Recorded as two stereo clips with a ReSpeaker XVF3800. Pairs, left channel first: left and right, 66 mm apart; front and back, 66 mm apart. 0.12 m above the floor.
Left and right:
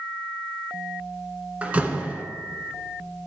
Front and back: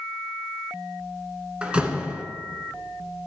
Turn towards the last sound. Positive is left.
turn(degrees=-130)